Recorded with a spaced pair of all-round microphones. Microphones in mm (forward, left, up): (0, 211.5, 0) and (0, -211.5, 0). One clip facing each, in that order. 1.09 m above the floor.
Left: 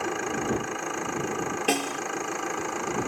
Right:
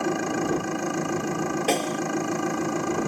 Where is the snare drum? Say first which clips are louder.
Right 1 dB; 25° left (ahead or behind).